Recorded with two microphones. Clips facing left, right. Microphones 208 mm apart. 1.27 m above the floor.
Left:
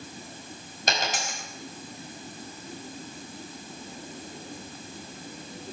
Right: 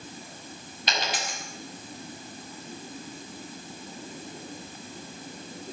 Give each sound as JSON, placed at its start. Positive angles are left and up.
{"t": 0.9, "sound": "a dropped coin", "side_deg": 45, "distance_m": 4.5}